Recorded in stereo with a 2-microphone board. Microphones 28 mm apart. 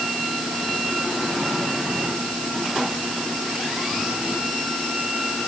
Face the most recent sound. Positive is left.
No sound to turn to.